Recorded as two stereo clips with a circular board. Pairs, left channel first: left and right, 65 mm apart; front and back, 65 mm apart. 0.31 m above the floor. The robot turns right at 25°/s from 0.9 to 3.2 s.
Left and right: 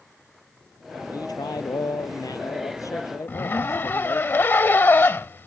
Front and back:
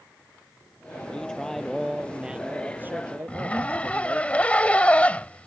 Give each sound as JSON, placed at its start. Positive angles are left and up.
{"t": 1.1, "sound": "a man speaking", "azimuth_deg": 75}
{"t": 3.3, "sound": "a zipper", "azimuth_deg": 60}